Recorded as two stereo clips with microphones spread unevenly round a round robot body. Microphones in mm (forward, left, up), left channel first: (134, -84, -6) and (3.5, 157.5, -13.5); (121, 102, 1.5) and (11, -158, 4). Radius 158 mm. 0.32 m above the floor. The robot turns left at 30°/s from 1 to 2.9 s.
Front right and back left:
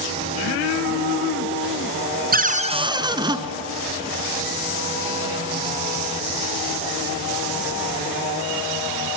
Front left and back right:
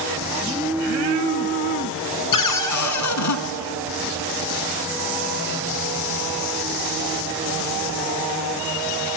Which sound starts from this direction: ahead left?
A cupboard door, at 2.3 s.